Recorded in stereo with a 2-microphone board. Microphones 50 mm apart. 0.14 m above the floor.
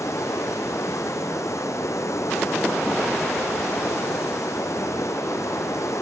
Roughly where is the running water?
Left.